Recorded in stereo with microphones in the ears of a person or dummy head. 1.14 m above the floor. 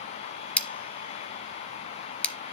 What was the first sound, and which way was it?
Scissors, 5° left (ahead or behind).